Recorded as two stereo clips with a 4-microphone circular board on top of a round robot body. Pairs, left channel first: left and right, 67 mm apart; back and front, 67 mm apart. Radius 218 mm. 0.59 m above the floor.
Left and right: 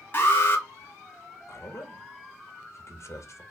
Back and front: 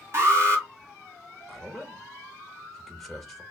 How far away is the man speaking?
About 1.3 m.